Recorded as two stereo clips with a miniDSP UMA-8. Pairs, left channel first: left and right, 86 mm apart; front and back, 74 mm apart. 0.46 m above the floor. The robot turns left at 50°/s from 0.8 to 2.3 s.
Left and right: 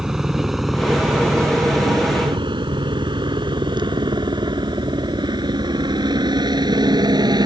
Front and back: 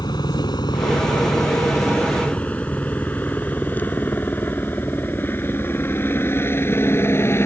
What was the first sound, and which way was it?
A helicopter, 5° right.